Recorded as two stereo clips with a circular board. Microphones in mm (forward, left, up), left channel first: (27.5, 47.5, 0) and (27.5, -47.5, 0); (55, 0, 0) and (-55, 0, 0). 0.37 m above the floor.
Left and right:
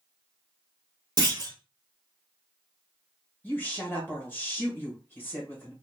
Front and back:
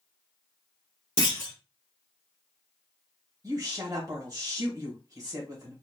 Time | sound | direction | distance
1.2 | a clunk | 45° right | 1.5 m
3.4 | a woman speaking | 145° left | 1.4 m